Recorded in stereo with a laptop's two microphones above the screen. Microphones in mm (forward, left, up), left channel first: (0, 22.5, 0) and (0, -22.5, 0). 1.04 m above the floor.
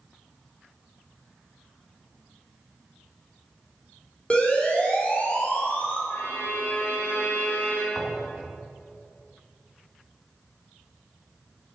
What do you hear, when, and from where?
4.3 s a siren: 30° left (ahead or behind), 4 m; by 6.0 s 35° left (ahead or behind), 3.5 m
6.1 s a violin: 70° left (ahead or behind), 5.5 m
8.0 s a thud: 15° left (ahead or behind), 1.9 m